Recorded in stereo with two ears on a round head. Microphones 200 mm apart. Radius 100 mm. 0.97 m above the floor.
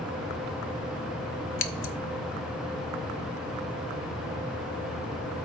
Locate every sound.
1.6 s scissors: 60° left (ahead or behind), 0.9 m